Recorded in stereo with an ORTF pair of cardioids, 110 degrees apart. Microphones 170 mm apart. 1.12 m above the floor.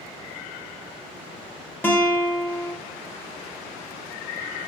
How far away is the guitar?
About 0.7 m.